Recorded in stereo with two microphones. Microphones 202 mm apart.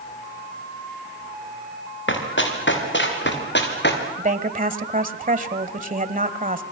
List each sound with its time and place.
2.1 s running footsteps: 70° left (ahead or behind), 6 m; by 4.0 s 60° left (ahead or behind), 5 m
4.2 s a woman speaking: 40° right (ahead or behind), 1.5 m